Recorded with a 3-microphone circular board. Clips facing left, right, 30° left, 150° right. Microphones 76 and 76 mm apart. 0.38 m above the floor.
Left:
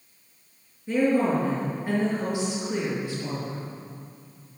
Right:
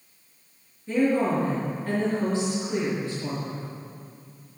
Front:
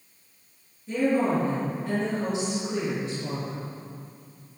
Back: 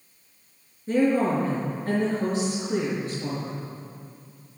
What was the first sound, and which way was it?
A woman speaking, 165° left.